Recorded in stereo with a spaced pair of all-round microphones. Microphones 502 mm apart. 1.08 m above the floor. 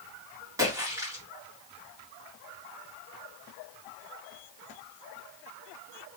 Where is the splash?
5° right (ahead or behind), 2 m.